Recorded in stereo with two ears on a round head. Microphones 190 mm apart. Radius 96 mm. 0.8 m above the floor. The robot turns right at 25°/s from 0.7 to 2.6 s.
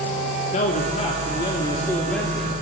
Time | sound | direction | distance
0.5 | a man speaking | 140° left | 2 m